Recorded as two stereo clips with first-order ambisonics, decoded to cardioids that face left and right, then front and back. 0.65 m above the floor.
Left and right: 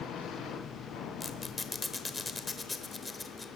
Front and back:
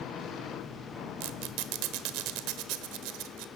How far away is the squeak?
About 1.2 m.